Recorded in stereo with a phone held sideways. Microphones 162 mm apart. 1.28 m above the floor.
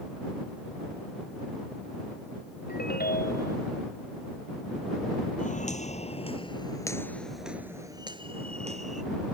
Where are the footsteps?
50° left (ahead or behind); by 9.0 s 50° right (ahead or behind).